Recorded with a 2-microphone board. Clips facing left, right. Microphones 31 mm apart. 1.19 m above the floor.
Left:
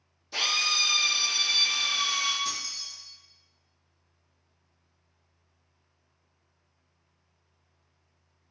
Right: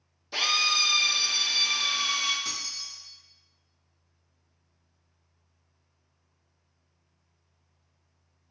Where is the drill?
20° right (ahead or behind), 0.8 m.